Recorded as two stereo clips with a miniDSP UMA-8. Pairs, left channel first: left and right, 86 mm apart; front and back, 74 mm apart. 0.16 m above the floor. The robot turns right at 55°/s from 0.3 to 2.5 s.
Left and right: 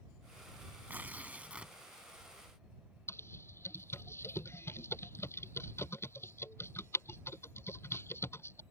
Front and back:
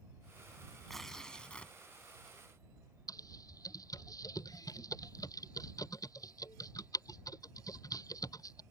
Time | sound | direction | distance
0.9 | tearing paper | 85° right | ?
3.1 | typing on a keyboard | 30° left | ?